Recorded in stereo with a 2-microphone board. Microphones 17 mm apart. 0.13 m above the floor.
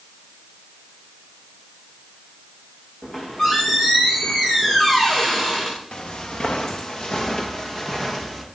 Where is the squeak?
30° left (ahead or behind), 7.5 m.